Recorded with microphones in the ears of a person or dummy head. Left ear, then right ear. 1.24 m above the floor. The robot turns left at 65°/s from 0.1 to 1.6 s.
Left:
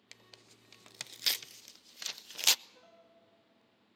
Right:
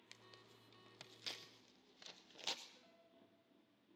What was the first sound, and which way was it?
Tearing paper, 15° left (ahead or behind).